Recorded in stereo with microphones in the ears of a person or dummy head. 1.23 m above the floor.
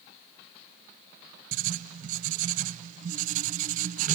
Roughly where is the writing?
Right.